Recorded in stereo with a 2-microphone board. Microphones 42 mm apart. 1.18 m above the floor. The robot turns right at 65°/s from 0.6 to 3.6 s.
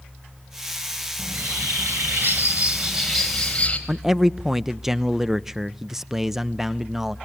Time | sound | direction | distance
1.2 | a bird | 125° right | 4 m
3.9 | a man speaking | 10° right (ahead or behind) | 0.5 m